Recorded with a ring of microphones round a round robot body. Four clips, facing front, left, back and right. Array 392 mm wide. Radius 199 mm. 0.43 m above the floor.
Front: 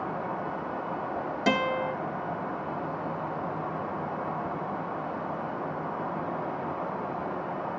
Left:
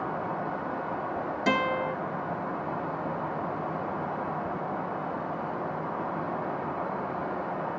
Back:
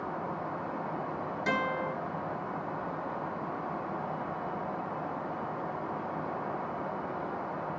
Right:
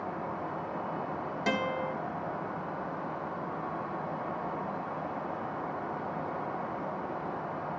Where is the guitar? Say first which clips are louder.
Left 5 dB, front 5 dB; straight ahead, 2.5 m.